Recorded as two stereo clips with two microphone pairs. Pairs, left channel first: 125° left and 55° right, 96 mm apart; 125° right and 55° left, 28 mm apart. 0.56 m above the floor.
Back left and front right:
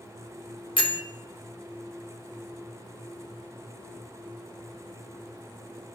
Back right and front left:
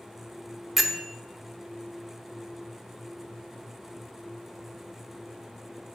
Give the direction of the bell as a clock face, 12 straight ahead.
8 o'clock.